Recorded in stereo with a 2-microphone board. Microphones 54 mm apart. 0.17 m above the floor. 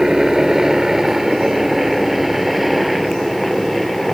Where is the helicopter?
10° right (ahead or behind); by 4.2 s centre (ahead or behind).